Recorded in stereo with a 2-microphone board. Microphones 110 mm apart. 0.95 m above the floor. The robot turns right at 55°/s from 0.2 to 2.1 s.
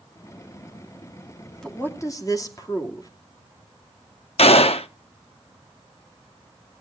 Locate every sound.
1.6 s a woman speaking: 5° left (ahead or behind), 2.5 m; by 3.1 s 30° left (ahead or behind), 2.5 m
4.4 s a gunshot: 65° left (ahead or behind), 0.8 m